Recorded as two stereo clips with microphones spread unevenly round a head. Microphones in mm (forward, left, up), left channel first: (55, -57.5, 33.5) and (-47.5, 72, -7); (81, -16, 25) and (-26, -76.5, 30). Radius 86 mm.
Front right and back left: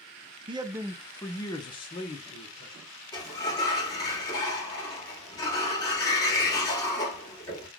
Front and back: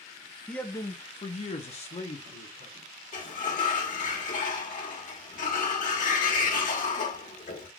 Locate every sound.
0.5 s a man speaking: 110° left, 0.5 m; by 2.8 s straight ahead, 1.2 m
3.1 s a sliding door: 15° left, 1.3 m